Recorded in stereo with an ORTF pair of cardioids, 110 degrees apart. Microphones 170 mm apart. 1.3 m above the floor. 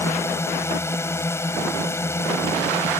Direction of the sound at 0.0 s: 15° left.